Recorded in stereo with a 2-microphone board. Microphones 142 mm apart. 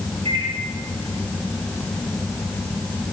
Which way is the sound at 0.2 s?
45° right (ahead or behind).